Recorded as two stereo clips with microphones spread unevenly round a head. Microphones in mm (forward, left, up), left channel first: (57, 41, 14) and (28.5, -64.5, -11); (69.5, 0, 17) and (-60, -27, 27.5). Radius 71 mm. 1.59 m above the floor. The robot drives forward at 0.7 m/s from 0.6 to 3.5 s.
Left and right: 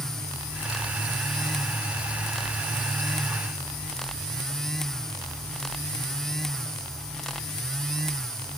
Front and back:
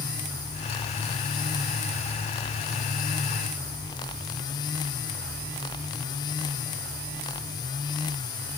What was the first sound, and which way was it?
Only background noise.